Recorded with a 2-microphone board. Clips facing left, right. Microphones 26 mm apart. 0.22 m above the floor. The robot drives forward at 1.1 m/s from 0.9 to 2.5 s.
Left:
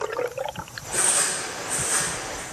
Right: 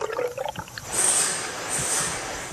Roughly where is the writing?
Left.